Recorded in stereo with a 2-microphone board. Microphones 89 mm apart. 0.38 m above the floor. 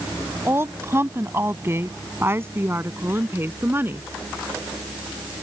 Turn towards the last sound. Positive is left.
turn(degrees=-25)  # may be behind; listen again after turning